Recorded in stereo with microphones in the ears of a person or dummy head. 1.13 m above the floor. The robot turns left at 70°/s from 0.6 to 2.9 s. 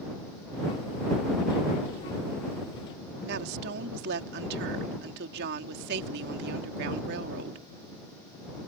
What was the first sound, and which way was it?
A woman speaking, 60° right (ahead or behind).